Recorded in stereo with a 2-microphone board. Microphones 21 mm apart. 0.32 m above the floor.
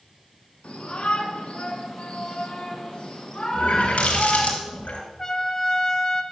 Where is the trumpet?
25° left (ahead or behind), 1.3 m.